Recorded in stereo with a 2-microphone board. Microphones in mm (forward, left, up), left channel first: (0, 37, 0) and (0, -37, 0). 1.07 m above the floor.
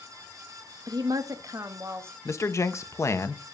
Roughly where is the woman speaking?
Right.